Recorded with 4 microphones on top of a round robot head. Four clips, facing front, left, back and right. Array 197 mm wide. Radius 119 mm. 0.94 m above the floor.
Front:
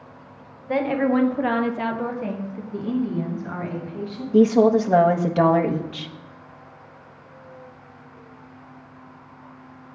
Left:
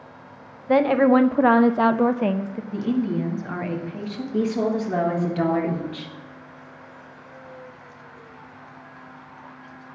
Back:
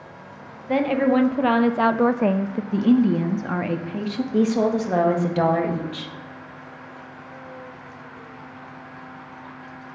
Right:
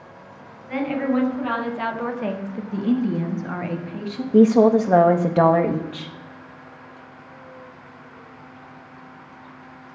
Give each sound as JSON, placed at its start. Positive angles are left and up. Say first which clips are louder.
{"t": 0.7, "sound": "a woman speaking", "louder": "left 6 dB, back 1 dB", "azimuth_deg": 90, "distance_m": 1.5}
{"t": 2.7, "sound": "a woman speaking", "louder": "right 2 dB, back 7 dB", "azimuth_deg": -175, "distance_m": 1.5}
{"t": 4.3, "sound": "a woman speaking", "louder": "right 9 dB, front 5 dB", "azimuth_deg": -75, "distance_m": 1.6}